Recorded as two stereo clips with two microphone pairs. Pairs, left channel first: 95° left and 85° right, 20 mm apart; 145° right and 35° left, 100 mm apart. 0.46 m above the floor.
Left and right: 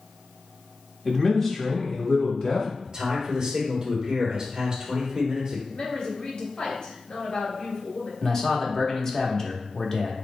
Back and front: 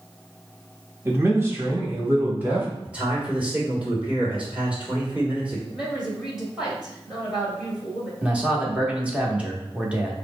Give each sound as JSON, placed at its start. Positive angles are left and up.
{"t": 1.1, "sound": "a man speaking", "azimuth_deg": 25, "distance_m": 0.9}
{"t": 2.9, "sound": "a man speaking", "azimuth_deg": -40, "distance_m": 1.6}
{"t": 5.7, "sound": "a woman speaking", "azimuth_deg": 115, "distance_m": 2.0}
{"t": 8.2, "sound": "a man speaking", "azimuth_deg": 90, "distance_m": 0.9}